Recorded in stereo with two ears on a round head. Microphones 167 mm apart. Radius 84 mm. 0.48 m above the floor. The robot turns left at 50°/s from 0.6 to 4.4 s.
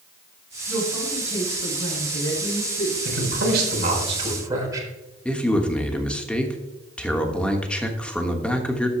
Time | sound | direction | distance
0.7 | a woman speaking | 170° right | 5 m
3.0 | a man speaking | 95° right | 3.5 m
5.2 | a man speaking | 5° left (ahead or behind) | 1.1 m